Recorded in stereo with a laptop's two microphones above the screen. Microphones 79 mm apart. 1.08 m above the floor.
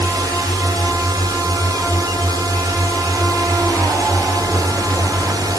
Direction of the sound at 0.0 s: 55° right (ahead or behind).